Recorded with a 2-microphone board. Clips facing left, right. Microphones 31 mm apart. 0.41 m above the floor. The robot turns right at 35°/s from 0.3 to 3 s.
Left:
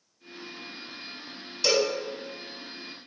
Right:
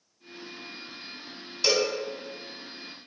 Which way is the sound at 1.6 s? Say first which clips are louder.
Left 1 dB; 5° right (ahead or behind).